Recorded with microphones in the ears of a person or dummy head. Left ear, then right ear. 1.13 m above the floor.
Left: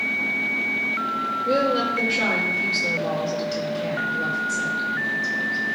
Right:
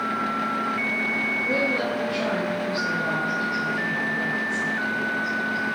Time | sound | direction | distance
1.4 | a woman speaking | 55° left (ahead or behind) | 2 m